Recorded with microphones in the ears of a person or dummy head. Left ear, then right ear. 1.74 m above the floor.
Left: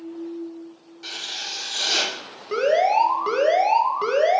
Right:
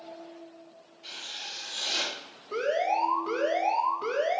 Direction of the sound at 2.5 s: 45° left (ahead or behind).